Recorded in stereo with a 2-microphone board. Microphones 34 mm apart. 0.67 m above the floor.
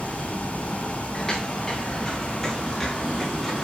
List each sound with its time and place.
1.1 s footsteps: 15° left (ahead or behind), 3.5 m; by 3.6 s 5° left (ahead or behind), 7 m